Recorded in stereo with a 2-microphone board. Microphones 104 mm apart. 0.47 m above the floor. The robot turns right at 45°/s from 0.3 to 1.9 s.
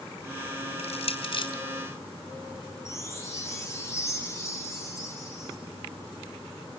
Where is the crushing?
80° left, 4 m; by 1.5 s 55° left (ahead or behind), 4 m.